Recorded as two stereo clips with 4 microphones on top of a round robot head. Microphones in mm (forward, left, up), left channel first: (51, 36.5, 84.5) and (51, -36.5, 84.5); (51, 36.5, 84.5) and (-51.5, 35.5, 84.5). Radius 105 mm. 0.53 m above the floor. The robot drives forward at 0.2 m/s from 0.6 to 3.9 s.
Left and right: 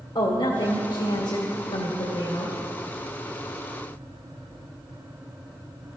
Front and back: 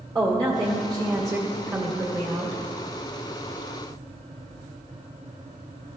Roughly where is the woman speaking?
Behind left.